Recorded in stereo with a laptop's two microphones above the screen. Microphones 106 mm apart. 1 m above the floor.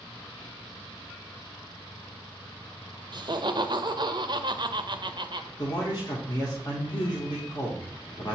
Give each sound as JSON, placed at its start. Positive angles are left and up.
{"t": 3.1, "sound": "laughter", "side_deg": -50, "distance_m": 0.5}
{"t": 5.6, "sound": "a man speaking", "side_deg": 45, "distance_m": 0.8}